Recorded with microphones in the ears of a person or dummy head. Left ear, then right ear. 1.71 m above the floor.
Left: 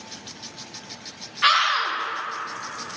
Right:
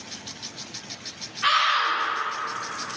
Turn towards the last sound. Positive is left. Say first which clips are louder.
# left 1 dB
turn(degrees=70)  # may be behind; listen again after turning